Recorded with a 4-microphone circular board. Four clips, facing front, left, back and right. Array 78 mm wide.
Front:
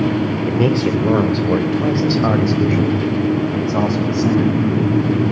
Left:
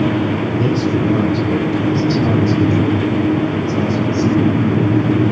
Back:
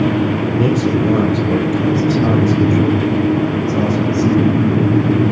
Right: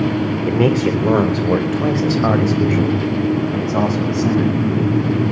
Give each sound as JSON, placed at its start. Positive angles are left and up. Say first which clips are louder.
{"t": 0.5, "sound": "a man speaking", "louder": "right 1 dB, back 1 dB", "azimuth_deg": -70, "distance_m": 4.0}